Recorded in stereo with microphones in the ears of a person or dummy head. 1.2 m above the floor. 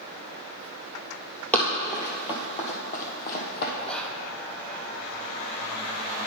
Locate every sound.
1.5 s running footsteps: 10° left (ahead or behind), 1.7 m; by 3.7 s 55° left (ahead or behind), 2.5 m
3.8 s whispering: 5° left (ahead or behind), 0.9 m